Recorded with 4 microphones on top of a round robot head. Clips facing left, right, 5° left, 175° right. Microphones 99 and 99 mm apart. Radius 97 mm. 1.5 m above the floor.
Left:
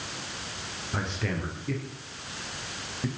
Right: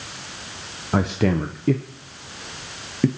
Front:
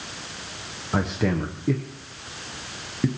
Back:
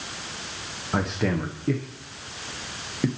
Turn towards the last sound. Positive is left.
turn(degrees=-85)